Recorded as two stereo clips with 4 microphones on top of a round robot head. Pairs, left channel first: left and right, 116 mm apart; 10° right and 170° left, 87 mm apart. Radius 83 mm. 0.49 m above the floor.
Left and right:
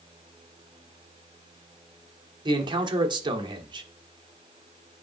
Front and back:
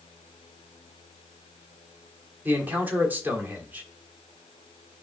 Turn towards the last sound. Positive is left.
turn(degrees=-120)